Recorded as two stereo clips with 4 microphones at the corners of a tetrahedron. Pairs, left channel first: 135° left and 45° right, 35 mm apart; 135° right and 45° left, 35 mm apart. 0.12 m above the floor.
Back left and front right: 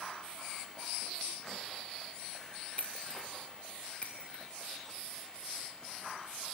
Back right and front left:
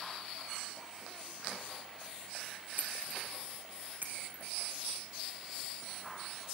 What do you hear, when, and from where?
2.8 s breaking glass: 75° left, 3.5 m